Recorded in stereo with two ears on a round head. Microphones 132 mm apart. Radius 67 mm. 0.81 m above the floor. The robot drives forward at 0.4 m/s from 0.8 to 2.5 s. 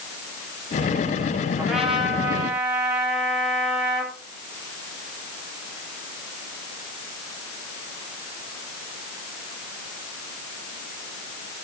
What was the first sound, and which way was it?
A trumpet, 5° right (ahead or behind).